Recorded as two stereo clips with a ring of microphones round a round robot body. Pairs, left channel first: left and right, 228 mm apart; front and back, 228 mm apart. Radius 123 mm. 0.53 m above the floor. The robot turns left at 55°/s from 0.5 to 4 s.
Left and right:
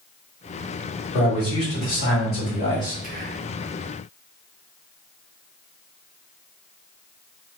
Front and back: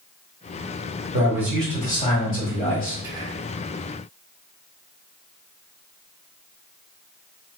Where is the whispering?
110° right, 0.8 m; by 3.5 s 135° right, 0.8 m.